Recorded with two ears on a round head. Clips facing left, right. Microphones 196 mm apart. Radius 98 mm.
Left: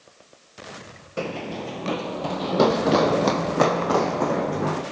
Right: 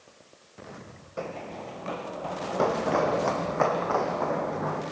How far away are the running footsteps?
About 1.2 m.